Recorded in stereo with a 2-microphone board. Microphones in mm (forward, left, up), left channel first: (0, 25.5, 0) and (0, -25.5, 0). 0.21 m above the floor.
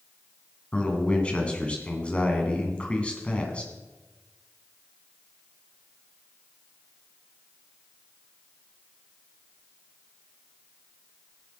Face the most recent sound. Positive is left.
turn(degrees=25)  # may be behind; listen again after turning